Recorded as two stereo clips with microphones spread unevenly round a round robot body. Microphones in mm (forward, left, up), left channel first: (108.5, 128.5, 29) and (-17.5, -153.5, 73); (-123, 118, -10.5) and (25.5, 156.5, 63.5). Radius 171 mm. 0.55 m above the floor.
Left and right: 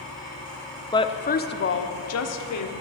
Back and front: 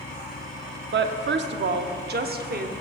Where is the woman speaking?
Straight ahead, 0.8 m; by 2.7 s 55° left, 1.3 m.